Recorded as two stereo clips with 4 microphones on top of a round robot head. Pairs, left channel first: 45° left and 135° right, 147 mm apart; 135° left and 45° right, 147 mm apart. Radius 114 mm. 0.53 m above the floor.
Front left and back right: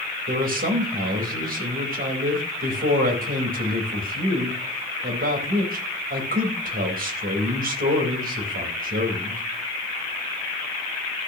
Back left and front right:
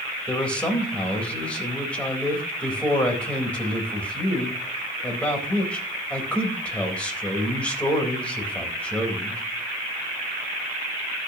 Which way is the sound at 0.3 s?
145° right.